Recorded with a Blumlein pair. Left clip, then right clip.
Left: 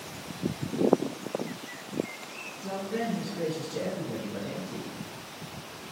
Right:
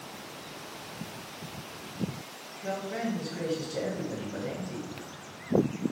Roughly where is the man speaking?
Ahead right.